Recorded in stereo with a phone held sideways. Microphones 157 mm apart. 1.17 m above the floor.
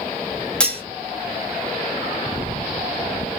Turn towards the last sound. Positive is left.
turn(degrees=5)  # may be behind; listen again after turning